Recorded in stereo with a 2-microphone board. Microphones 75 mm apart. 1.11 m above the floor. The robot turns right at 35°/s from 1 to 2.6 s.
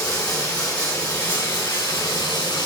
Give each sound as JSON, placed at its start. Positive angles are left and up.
{"t": 0.0, "sound": "running water", "azimuth_deg": 55, "distance_m": 2.5}